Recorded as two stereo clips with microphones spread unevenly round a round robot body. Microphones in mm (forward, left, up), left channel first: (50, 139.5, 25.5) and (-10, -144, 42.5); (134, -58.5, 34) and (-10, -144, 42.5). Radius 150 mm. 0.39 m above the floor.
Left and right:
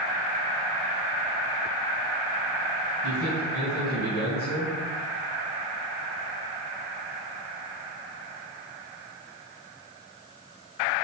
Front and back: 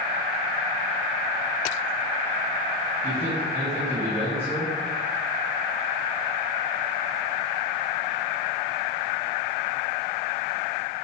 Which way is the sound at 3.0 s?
115° left.